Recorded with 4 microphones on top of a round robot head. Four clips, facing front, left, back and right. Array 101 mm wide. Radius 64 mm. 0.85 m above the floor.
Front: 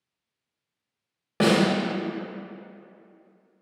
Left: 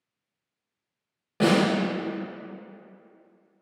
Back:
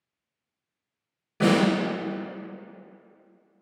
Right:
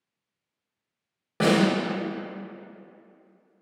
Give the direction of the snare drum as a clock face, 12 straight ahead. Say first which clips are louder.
Even, front 1 dB; 12 o'clock.